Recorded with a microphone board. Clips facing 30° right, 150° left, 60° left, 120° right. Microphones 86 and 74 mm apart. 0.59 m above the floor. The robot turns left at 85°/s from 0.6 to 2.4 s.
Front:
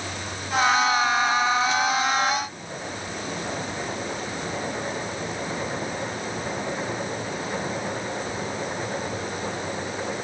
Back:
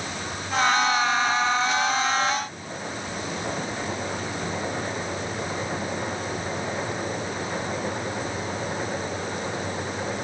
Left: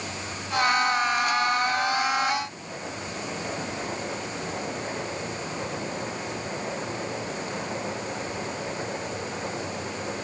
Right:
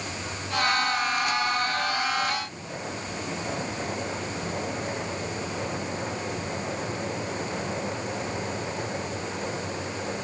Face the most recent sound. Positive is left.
No sound to turn to.